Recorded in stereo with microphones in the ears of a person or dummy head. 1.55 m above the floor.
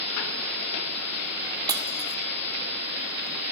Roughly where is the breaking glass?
Right.